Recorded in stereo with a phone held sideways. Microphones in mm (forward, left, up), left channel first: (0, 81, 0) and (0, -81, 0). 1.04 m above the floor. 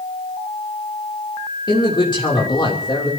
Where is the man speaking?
30° left (ahead or behind), 3 m.